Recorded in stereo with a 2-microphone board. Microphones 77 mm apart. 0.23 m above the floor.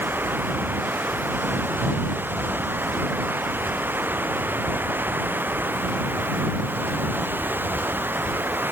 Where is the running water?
25° right (ahead or behind).